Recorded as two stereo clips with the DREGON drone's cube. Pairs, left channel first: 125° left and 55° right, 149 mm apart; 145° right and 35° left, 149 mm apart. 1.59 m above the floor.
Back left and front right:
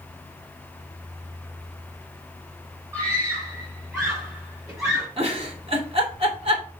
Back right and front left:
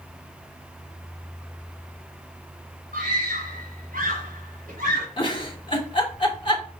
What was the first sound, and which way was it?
A scream, 15° left.